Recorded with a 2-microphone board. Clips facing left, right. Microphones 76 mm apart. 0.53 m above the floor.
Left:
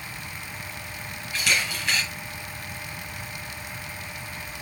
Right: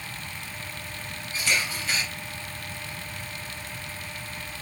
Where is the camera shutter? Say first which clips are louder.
Left 1 dB; 80° left, 4.5 m.